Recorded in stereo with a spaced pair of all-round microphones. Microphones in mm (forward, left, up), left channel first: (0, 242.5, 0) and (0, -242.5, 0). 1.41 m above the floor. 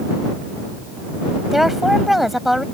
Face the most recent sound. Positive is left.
turn(degrees=0)  # may be behind; listen again after turning